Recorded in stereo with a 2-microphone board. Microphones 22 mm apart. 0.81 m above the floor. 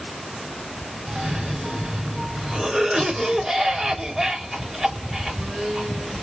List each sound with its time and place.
1.1 s a cough: 25° right (ahead or behind), 1.9 m